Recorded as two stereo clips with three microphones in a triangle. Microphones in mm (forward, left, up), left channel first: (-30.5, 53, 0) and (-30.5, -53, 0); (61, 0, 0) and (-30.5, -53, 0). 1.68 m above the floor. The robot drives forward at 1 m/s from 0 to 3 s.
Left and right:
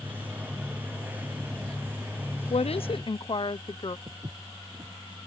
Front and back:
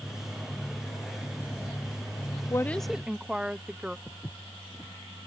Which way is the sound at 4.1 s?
45° right.